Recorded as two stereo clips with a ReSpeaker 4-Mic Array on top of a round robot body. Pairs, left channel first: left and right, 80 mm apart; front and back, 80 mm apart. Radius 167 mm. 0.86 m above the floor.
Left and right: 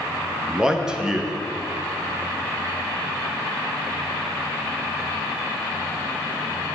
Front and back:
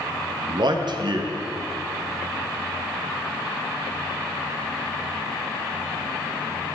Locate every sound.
0.5 s a man speaking: 170° right, 1.3 m